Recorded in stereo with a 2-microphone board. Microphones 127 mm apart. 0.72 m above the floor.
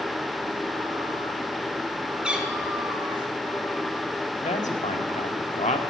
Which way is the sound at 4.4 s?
65° left (ahead or behind).